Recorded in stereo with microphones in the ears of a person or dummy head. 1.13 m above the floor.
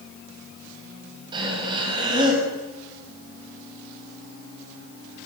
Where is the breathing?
25° right (ahead or behind), 7 m.